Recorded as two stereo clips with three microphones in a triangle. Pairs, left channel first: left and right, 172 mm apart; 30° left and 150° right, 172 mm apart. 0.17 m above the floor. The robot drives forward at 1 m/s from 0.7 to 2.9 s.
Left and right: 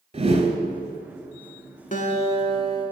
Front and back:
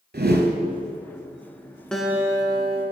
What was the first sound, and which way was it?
A whoosh, 145° right.